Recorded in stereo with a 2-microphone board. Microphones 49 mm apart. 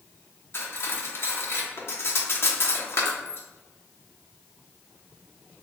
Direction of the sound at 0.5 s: 55° left (ahead or behind).